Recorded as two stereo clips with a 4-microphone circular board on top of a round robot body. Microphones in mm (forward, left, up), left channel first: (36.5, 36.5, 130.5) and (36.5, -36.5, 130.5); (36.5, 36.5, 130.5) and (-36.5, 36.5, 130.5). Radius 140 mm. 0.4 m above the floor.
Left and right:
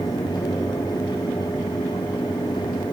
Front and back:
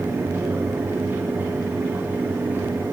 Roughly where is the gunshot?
I don't hear a gunshot.